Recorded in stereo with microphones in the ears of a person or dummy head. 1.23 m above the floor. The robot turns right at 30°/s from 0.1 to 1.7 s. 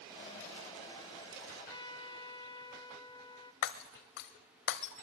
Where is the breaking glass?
60° left (ahead or behind), 1.7 m.